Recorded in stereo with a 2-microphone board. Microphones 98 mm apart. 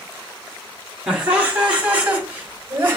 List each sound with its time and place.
1.1 s laughter: 10° right (ahead or behind), 2 m; by 3.0 s 20° right (ahead or behind), 1.4 m